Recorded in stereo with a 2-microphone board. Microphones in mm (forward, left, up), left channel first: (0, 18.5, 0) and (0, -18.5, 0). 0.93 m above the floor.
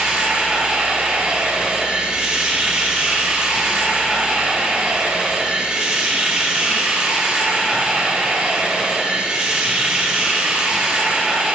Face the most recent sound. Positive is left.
turn(degrees=-25)  # may be behind; listen again after turning